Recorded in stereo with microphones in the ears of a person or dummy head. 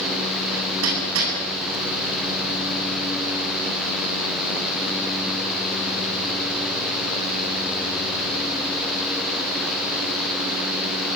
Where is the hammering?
75° right (ahead or behind), 8.5 m.